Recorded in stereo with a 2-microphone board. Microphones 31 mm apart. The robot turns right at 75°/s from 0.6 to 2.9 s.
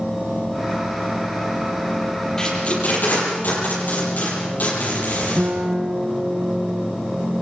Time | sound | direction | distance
2.4 | tape being pulled | 15° left (ahead or behind) | 8 m
5.4 | a guitar | 45° right (ahead or behind) | 3 m